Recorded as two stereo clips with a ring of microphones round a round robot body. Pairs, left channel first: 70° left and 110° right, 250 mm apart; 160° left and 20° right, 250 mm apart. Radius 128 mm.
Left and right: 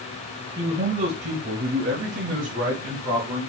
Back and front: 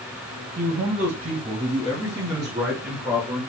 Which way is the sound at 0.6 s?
50° right.